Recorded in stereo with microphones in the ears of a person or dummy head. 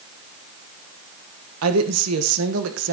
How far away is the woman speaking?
About 1.4 m.